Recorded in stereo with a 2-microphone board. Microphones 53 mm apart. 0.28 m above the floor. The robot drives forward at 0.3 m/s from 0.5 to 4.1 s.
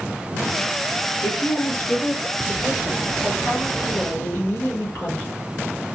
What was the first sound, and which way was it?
A woman speaking, 50° left (ahead or behind).